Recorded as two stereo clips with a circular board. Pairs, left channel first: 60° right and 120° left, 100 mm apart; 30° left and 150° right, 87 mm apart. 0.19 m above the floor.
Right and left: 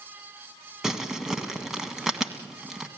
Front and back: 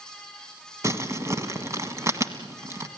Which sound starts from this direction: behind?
Crumpling, at 0.8 s.